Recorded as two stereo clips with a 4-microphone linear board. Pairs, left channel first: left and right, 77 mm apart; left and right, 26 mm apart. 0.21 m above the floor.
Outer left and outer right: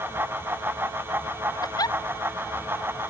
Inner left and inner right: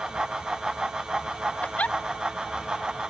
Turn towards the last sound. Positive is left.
turn(degrees=55)  # may be behind; listen again after turning